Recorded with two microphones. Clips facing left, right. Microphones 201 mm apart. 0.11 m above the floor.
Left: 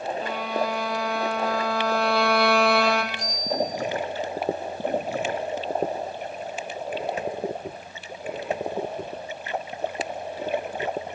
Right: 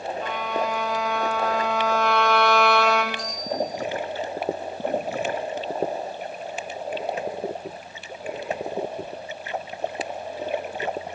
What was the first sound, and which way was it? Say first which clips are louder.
A violin: right 1 dB; 30° left (ahead or behind).